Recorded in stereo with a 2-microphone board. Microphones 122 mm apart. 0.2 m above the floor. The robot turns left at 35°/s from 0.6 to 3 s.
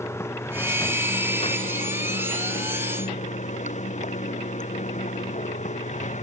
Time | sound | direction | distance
0.0 | running water | 160° left | ?